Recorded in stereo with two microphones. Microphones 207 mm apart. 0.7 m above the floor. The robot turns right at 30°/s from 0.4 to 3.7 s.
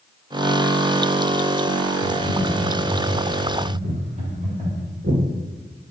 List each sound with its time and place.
2.0 s typing on a keyboard: 85° right, 2.5 m; by 4.8 s 35° right, 2.5 m
3.8 s footsteps: 70° right (ahead or behind), 3 m; by 5.2 s 60° right (ahead or behind), 2.5 m